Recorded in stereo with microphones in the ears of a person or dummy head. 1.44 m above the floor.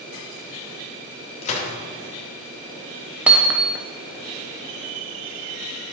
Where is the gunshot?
35° left (ahead or behind), 2.5 m.